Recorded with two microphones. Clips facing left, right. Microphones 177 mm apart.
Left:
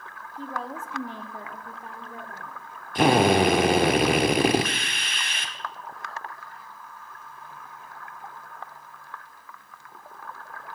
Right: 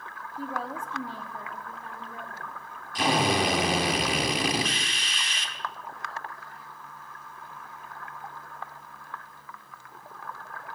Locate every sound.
0.4 s a woman speaking: 10° right (ahead or behind), 1.1 m; by 2.6 s 25° left (ahead or behind), 3 m
3.0 s a drill: 60° left (ahead or behind), 1.3 m